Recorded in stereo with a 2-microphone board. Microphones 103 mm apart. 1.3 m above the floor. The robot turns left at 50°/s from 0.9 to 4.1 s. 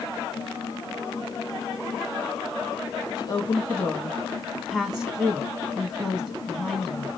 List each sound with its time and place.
3.2 s a woman speaking: 45° left, 1.8 m; by 7.1 s 5° right, 1.8 m